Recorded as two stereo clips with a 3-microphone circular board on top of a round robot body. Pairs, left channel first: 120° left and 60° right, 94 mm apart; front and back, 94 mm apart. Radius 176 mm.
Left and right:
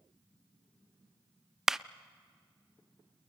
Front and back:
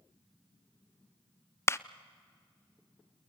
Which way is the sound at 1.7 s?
20° left.